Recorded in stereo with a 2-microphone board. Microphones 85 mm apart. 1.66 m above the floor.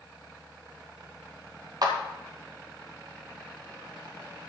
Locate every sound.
1.8 s a clap: 50° right (ahead or behind), 1.9 m